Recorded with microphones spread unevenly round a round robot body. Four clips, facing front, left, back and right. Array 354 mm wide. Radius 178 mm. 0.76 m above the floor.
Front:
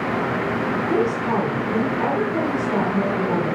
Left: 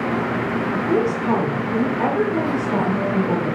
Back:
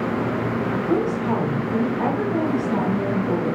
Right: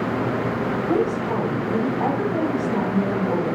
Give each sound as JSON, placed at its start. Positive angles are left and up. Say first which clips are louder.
{"t": 0.9, "sound": "a woman speaking", "louder": "left 3 dB, front 1 dB", "azimuth_deg": 95, "distance_m": 2.5}